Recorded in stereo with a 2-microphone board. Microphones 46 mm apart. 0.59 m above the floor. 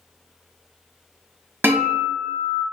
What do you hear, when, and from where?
1.6 s a guitar: 50° right (ahead or behind), 0.9 m